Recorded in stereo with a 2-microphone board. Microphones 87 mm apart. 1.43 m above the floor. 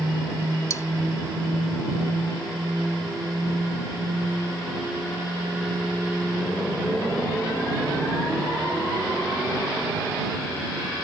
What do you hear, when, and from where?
0.7 s cutlery clinking: 35° left (ahead or behind)